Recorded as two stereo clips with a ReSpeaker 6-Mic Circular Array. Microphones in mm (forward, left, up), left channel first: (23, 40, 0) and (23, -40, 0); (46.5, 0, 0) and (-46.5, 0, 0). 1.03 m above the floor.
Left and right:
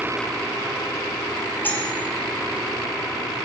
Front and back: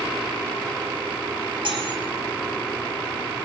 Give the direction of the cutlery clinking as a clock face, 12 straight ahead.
7 o'clock.